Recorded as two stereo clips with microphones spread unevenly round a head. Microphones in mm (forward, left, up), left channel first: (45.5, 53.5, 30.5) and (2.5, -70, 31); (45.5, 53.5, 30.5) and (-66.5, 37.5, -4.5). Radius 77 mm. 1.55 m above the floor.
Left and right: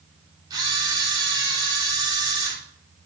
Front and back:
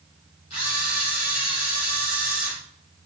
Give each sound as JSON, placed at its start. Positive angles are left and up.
{"t": 0.5, "sound": "a camera shutter", "azimuth_deg": -50, "distance_m": 3.5}